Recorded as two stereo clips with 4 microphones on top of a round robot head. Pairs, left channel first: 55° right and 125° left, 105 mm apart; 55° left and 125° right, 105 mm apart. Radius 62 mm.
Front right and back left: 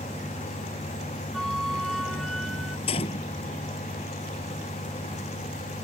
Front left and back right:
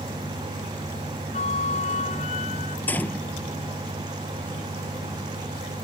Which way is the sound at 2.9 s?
20° right.